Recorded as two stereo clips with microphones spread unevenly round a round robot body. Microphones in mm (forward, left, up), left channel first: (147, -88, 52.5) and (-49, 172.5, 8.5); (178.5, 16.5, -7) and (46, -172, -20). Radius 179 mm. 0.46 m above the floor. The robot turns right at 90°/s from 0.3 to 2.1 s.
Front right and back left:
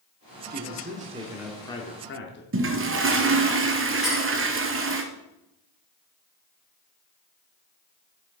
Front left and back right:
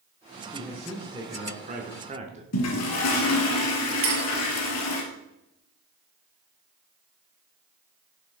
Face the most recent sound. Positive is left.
turn(degrees=-145)